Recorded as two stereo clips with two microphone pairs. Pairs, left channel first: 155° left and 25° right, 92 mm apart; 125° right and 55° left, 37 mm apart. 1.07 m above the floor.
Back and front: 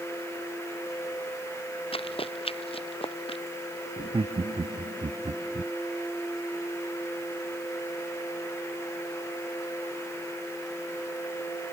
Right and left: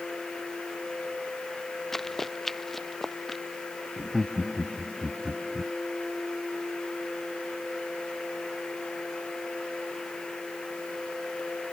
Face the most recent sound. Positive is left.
turn(degrees=-20)